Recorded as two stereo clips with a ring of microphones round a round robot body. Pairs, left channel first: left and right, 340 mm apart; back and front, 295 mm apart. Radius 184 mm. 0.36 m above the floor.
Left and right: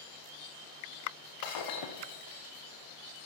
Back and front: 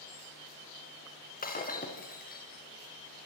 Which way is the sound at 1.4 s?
120° left.